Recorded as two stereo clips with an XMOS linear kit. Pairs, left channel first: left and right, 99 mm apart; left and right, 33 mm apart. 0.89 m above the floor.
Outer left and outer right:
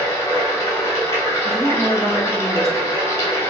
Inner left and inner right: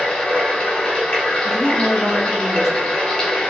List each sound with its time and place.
0.0 s running water: 30° left (ahead or behind), 1.1 m
1.4 s a woman speaking: 5° left (ahead or behind), 1.3 m